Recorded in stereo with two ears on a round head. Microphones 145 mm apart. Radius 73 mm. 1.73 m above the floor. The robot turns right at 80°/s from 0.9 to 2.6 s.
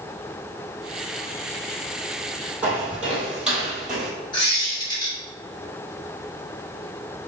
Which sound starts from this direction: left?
A squeak, at 4.3 s.